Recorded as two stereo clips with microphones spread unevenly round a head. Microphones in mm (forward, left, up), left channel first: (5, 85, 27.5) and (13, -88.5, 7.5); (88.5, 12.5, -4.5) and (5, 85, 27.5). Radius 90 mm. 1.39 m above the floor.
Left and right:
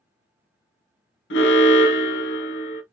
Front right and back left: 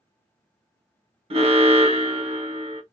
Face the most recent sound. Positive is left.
turn(degrees=105)